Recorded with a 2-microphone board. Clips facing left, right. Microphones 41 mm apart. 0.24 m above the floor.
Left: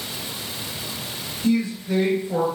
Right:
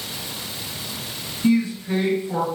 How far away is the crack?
I don't hear a crack.